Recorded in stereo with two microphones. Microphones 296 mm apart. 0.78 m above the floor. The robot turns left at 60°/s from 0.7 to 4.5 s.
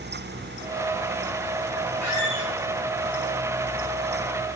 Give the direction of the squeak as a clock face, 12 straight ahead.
4 o'clock.